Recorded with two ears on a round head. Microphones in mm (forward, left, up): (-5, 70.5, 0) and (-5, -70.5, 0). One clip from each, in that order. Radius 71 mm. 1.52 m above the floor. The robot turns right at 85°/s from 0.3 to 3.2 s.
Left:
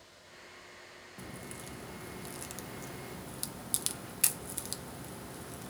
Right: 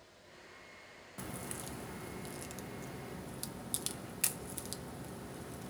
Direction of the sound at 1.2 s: 20° right (ahead or behind).